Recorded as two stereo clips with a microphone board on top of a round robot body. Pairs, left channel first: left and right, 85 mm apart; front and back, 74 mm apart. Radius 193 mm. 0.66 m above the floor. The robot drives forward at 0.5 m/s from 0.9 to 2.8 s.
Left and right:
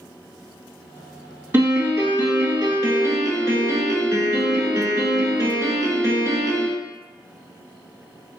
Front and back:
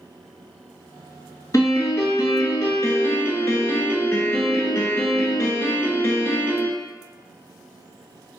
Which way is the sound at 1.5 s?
30° right.